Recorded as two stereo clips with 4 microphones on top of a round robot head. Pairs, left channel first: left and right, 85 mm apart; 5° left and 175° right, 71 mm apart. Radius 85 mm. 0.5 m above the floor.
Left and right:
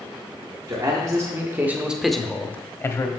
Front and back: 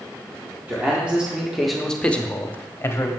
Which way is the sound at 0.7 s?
115° right.